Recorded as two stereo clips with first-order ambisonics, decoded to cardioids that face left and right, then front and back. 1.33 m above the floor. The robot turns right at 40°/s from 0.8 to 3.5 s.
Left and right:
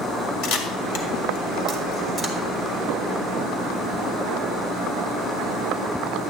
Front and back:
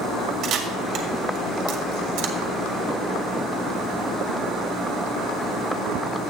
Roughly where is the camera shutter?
Behind left.